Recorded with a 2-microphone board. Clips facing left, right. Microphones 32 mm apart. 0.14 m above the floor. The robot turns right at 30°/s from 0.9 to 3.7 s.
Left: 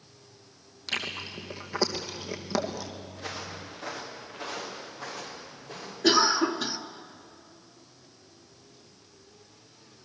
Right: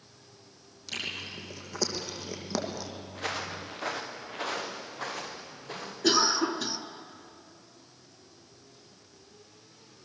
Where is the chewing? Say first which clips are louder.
Left 3 dB; 60° left (ahead or behind), 2.5 m; by 2.9 s 5° left (ahead or behind), 2.5 m.